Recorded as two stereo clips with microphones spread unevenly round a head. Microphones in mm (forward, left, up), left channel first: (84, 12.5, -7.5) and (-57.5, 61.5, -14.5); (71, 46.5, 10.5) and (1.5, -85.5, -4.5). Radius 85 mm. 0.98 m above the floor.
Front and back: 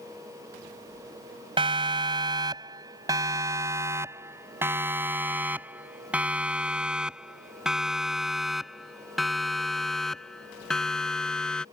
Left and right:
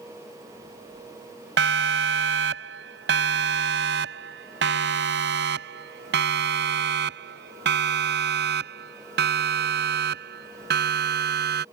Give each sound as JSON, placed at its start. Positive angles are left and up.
{"t": 1.6, "sound": "a siren", "azimuth_deg": -135}